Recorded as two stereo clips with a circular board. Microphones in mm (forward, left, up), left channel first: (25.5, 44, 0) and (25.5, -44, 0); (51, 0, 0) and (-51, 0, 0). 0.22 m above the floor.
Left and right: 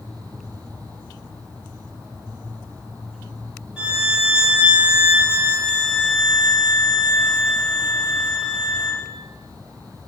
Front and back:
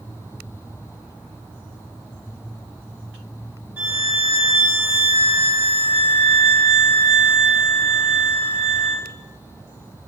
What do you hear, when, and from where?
3.8 s a violin: 155° right, 1.2 m